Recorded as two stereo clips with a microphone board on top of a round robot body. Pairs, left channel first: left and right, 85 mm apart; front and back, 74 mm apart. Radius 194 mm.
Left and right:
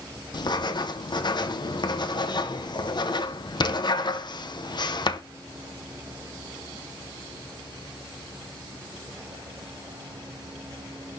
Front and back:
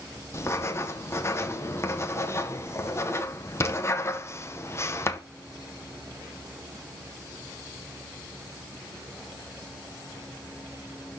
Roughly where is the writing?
Ahead left.